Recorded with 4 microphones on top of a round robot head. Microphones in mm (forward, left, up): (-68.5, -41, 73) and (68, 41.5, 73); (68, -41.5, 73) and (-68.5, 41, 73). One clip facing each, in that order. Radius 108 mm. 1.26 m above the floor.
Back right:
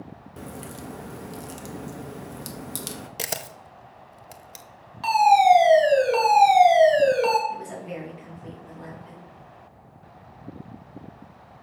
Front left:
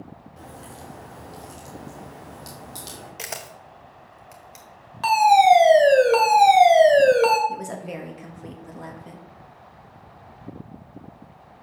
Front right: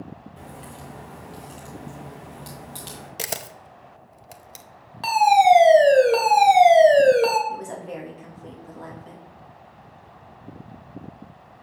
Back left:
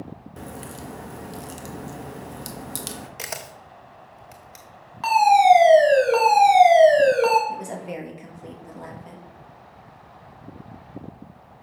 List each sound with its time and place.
0.4 s a crack: 170° right, 0.7 m
3.2 s a camera shutter: 90° right, 0.6 m
5.0 s a fire alarm: 20° left, 2.5 m
7.5 s a woman speaking: 70° left, 2 m